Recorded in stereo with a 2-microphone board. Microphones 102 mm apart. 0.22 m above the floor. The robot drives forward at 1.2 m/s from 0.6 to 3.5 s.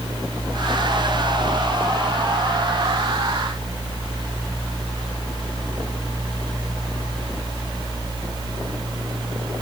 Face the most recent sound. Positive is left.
No sound to turn to.